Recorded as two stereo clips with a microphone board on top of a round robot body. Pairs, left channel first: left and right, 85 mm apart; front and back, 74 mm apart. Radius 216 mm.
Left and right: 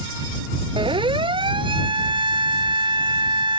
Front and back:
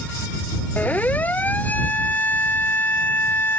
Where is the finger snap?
I don't hear a finger snap.